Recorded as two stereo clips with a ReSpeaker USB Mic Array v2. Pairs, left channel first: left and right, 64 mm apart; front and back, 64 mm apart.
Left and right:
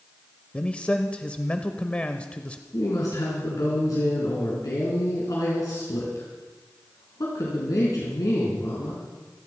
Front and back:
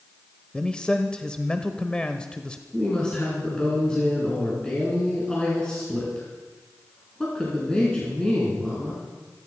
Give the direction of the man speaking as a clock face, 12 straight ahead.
10 o'clock.